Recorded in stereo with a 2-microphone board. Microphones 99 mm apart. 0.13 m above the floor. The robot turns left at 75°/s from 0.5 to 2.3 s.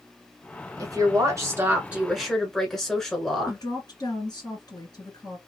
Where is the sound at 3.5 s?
40° left (ahead or behind), 2.5 m.